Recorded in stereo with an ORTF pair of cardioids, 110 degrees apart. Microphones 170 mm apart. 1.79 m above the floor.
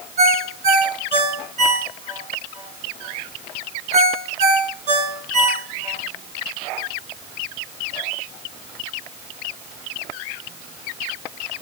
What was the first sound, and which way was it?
A ringtone, 55° right.